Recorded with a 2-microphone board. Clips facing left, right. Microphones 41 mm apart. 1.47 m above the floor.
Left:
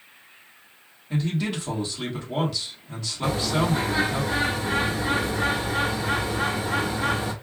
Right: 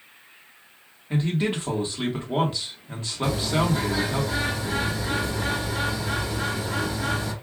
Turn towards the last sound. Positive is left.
turn(degrees=35)  # may be behind; listen again after turning